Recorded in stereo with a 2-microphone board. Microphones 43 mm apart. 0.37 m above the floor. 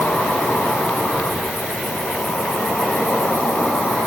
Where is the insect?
65° left (ahead or behind), 0.8 m.